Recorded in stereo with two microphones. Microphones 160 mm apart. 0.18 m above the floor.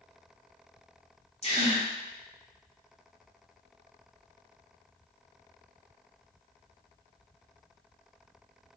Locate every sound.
1.4 s a gasp: 40° left (ahead or behind), 2.5 m